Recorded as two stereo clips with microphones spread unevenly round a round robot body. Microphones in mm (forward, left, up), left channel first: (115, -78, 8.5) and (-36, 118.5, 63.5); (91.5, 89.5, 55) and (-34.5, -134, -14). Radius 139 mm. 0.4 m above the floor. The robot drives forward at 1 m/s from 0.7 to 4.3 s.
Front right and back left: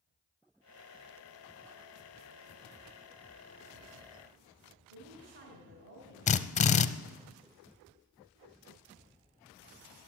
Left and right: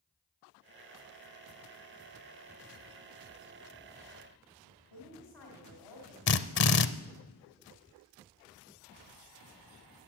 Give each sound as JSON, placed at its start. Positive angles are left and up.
{"t": 4.9, "sound": "a woman speaking", "azimuth_deg": 80, "distance_m": 3.0}
{"t": 6.3, "sound": "a drill", "azimuth_deg": 10, "distance_m": 0.6}